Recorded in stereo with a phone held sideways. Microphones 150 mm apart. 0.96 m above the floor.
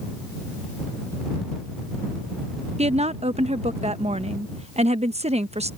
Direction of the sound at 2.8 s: 45° right (ahead or behind).